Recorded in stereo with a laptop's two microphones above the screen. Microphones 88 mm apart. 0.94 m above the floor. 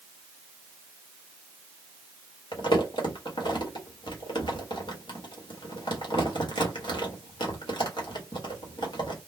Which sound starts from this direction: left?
Crumpling, at 2.5 s.